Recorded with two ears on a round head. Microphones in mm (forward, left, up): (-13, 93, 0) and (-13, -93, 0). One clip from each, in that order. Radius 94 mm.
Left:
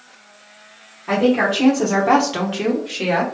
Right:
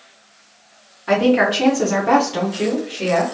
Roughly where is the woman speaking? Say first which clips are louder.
Right 2 dB; right.